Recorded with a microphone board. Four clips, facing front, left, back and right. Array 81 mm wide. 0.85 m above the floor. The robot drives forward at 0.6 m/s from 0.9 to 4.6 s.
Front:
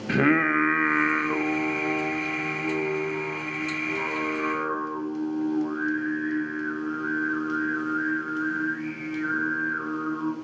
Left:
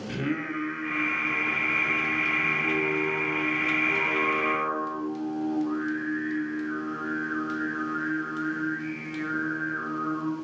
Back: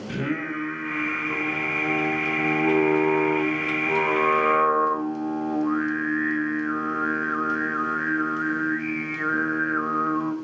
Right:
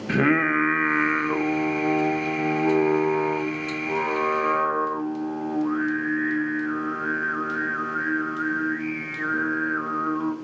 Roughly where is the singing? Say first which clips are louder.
Right 10 dB, front 8 dB; ahead right.